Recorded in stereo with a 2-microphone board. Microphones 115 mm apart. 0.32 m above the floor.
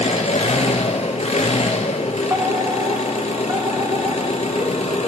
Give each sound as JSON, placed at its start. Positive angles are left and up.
{"t": 0.0, "sound": "an engine running", "side_deg": 75, "distance_m": 1.9}
{"t": 2.3, "sound": "a fire alarm", "side_deg": -30, "distance_m": 2.0}